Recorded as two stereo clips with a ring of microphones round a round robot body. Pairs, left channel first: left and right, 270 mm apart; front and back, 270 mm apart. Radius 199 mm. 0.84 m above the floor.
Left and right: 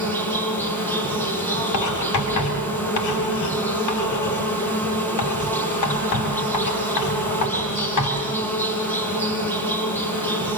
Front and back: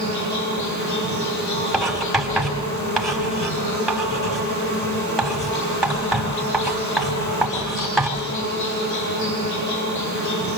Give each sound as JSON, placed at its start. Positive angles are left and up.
{"t": 0.0, "sound": "an insect", "azimuth_deg": 5, "distance_m": 8.5}
{"t": 1.7, "sound": "writing", "azimuth_deg": 90, "distance_m": 6.0}